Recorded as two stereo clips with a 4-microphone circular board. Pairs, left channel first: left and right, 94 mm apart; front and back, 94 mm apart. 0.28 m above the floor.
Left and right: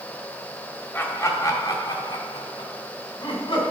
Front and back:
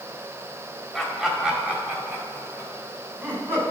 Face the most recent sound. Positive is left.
turn(degrees=115)